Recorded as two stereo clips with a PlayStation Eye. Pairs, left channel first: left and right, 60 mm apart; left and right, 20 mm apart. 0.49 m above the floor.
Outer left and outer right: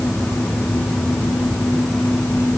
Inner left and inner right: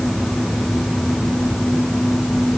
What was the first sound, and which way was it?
Only background noise.